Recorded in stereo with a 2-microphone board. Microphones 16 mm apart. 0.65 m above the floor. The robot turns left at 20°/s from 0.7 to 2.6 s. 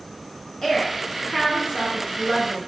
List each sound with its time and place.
0.6 s a woman speaking: 20° left (ahead or behind), 0.5 m; by 2.6 s 5° left (ahead or behind), 0.5 m